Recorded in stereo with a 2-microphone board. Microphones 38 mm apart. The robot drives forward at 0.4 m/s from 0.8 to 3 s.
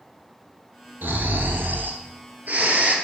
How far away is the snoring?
About 0.6 m.